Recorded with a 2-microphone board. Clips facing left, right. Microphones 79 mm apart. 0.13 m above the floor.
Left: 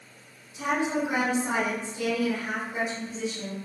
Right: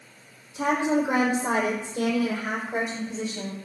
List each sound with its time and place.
0.6 s a woman speaking: 65° right (ahead or behind), 5 m; by 3.6 s 70° right (ahead or behind), 6.5 m